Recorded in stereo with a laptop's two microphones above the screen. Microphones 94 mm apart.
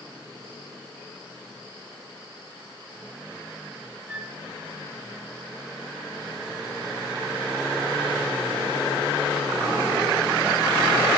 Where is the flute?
10° right (ahead or behind), 2.5 m.